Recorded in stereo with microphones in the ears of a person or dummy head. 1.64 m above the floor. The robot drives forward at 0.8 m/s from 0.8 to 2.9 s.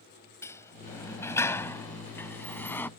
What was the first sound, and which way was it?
A sliding door, 15° left (ahead or behind).